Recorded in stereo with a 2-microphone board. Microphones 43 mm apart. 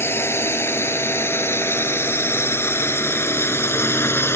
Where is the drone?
85° left.